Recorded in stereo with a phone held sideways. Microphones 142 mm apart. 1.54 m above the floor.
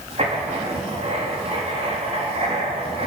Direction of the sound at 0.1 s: 45° right (ahead or behind).